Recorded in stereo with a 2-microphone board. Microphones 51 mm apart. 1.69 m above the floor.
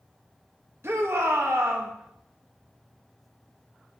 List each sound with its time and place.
0.8 s a shout: 60° right (ahead or behind), 3 m